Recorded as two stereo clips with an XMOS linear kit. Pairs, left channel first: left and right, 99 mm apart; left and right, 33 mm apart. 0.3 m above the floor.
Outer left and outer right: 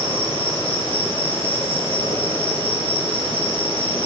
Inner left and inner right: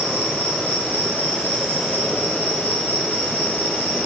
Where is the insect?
65° left (ahead or behind), 3 m.